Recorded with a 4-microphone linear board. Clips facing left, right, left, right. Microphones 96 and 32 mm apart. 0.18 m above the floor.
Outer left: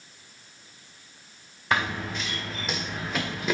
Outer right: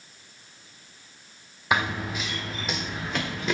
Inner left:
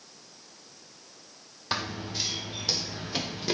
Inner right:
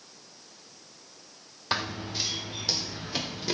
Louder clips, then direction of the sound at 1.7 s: Outer right 1 dB, inner right 1 dB; 10° right (ahead or behind).